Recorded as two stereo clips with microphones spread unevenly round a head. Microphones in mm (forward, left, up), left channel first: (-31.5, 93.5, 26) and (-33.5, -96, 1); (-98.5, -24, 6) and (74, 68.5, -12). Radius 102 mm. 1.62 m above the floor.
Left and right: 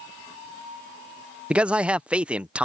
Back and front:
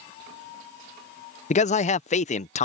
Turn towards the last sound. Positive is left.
turn(degrees=180)